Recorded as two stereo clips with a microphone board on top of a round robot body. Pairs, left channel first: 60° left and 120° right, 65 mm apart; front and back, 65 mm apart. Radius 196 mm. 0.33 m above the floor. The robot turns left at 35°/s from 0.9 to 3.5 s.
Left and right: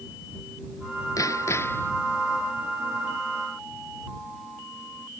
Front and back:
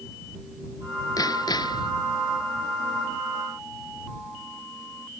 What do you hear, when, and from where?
1.2 s hammering: 25° left; by 1.9 s 5° right